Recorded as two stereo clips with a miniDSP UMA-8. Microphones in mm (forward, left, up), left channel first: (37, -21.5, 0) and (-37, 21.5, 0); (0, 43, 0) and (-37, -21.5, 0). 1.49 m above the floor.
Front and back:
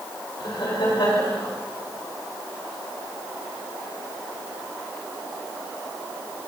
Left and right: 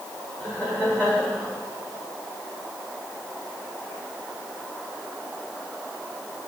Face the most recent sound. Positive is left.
turn(degrees=-10)